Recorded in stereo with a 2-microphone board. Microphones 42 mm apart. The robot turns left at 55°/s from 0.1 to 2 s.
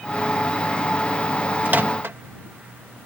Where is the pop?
I don't hear a pop.